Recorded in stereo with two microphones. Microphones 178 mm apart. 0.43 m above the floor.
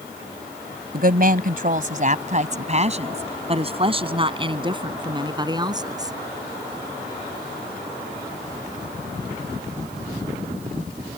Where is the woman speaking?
60° right (ahead or behind); by 6.1 s 20° right (ahead or behind).